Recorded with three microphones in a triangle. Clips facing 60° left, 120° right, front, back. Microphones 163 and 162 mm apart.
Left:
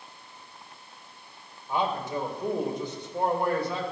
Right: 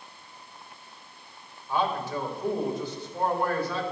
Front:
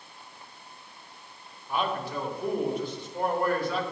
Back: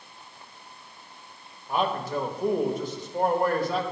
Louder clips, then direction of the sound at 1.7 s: Even, back 3 dB; 130° left.